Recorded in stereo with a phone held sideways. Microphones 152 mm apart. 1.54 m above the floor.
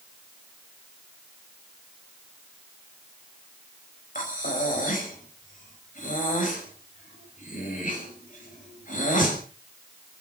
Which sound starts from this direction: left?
Breathing, at 4.2 s.